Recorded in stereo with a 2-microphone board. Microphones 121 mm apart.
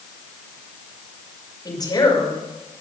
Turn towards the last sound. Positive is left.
turn(degrees=35)  # may be behind; listen again after turning